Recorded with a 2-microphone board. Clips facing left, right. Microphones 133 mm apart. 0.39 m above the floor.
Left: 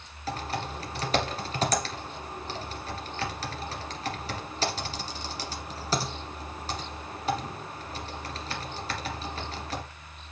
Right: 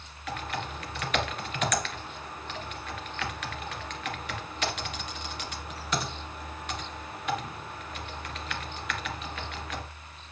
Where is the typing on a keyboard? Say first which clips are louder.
Left 2 dB; 35° left (ahead or behind), 1.8 m.